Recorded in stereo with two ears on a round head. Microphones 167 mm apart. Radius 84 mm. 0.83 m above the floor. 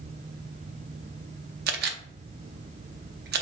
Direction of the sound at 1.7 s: 60° right (ahead or behind).